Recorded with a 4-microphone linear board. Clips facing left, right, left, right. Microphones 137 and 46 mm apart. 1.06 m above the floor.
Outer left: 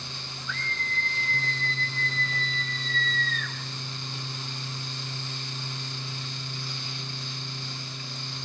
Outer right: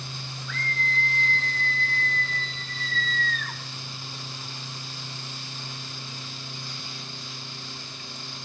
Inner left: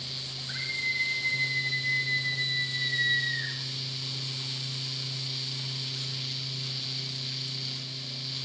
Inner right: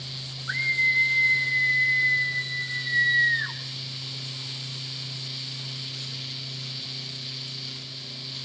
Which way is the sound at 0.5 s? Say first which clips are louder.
Outer right 4 dB, inner right 9 dB; 55° right (ahead or behind).